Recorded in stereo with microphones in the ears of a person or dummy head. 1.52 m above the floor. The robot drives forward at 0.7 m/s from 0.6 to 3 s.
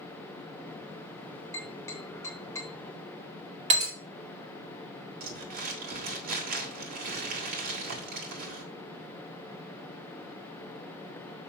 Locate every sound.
1.5 s tapping: 20° left (ahead or behind), 2.5 m; by 2.7 s 15° left (ahead or behind), 3 m
3.7 s breaking glass: 30° right (ahead or behind), 2 m
5.2 s crumpling: 45° right (ahead or behind), 1.8 m